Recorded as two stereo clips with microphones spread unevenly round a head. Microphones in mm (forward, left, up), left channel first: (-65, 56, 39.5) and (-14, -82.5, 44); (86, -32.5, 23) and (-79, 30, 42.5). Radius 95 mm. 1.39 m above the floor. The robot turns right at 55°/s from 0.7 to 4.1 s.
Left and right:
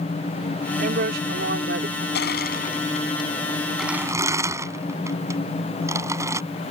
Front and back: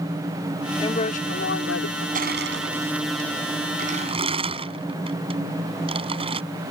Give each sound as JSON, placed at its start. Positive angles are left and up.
{"t": 0.8, "sound": "a woman speaking", "azimuth_deg": -90}
{"t": 2.1, "sound": "crushing", "azimuth_deg": 115}